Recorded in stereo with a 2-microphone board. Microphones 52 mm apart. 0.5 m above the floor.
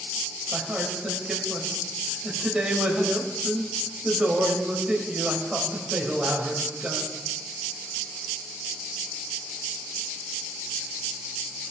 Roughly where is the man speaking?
Centre.